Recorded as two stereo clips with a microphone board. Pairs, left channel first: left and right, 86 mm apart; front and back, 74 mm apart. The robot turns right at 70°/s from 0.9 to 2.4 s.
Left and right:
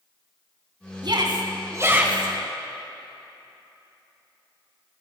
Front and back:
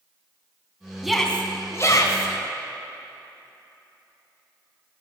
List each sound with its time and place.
1.0 s a shout: 95° right, 2.5 m; by 2.3 s 5° right, 2.5 m